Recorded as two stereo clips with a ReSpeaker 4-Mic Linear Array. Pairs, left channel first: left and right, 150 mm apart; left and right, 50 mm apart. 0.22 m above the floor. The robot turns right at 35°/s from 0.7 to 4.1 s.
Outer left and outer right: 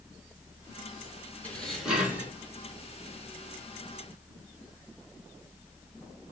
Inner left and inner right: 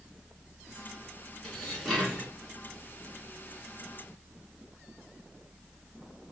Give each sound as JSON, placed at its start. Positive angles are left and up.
{"t": 1.4, "sound": "dishes clattering", "azimuth_deg": 170, "distance_m": 1.9}